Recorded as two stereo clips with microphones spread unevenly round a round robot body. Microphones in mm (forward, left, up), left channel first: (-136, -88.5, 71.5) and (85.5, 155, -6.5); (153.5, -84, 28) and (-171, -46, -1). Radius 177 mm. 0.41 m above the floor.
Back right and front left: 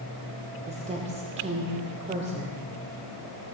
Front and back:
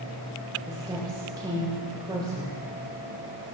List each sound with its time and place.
0.7 s a woman speaking: 100° left, 1.3 m